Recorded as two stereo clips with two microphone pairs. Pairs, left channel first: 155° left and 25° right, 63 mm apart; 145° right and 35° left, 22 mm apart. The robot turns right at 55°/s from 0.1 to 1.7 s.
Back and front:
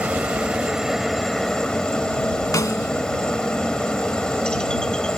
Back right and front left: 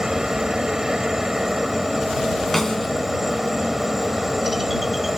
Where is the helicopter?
10° left; by 5.2 s 95° left.